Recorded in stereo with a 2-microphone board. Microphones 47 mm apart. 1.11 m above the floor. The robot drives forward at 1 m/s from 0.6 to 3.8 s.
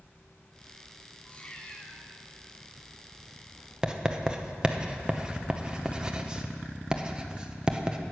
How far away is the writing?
About 0.8 m.